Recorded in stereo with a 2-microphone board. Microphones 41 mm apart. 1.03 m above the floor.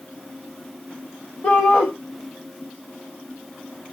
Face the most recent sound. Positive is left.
turn(degrees=45)  # may be behind; listen again after turning